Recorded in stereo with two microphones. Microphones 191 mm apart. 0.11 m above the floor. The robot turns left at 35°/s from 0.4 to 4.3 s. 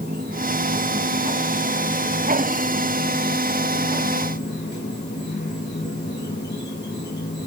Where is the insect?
115° right, 4 m; by 7.5 s 105° left, 4 m.